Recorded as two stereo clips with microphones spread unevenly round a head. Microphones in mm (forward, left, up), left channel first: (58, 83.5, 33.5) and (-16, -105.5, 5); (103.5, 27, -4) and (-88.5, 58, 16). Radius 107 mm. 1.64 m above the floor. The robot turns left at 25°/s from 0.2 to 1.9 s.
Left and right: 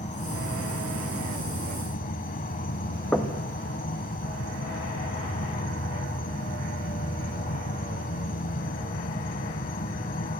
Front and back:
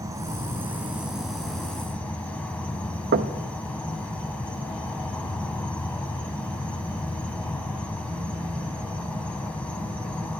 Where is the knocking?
150° left, 0.6 m.